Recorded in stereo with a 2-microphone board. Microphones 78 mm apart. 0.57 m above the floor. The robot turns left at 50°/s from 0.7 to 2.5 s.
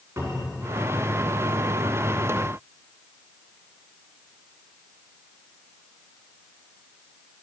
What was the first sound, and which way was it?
A cupboard door, 30° right (ahead or behind).